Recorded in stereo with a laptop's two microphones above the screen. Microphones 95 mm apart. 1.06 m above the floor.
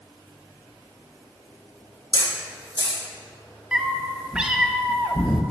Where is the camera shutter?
55° right (ahead or behind), 2.5 m.